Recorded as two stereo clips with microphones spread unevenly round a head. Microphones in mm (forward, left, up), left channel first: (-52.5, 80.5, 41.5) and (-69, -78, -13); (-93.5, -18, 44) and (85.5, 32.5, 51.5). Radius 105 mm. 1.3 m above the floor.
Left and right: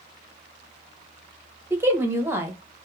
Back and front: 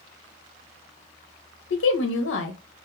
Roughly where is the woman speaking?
Behind.